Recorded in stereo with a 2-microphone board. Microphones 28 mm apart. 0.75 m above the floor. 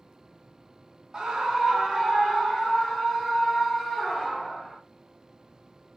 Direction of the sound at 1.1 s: 25° right (ahead or behind).